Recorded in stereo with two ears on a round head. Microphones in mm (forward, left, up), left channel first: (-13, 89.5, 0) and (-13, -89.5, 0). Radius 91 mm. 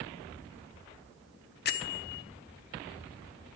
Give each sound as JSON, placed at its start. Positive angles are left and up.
{"t": 1.6, "sound": "a bell", "side_deg": 50, "distance_m": 0.5}